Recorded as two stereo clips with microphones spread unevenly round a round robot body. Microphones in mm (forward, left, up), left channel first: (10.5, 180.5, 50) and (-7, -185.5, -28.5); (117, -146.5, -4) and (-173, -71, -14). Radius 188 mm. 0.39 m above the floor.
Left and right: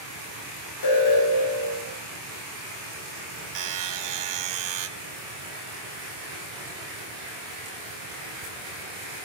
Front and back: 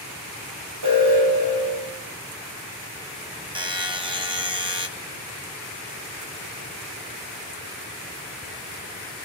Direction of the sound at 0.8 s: 120° left.